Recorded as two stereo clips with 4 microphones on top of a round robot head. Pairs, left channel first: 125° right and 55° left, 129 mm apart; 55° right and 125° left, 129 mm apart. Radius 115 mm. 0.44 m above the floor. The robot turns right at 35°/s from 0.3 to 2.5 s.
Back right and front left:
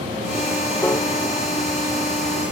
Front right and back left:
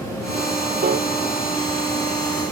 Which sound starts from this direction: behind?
A piano, at 0.8 s.